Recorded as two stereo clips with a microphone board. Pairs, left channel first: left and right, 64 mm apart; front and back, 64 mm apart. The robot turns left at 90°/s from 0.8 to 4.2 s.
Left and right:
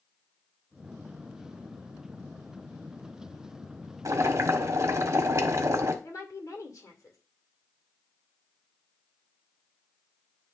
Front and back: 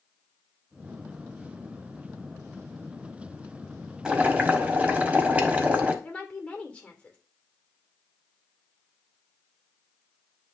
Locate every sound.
4.0 s boiling: 105° right, 1.2 m; by 5.9 s 120° right, 1.2 m
6.0 s a woman speaking: 70° left, 2.0 m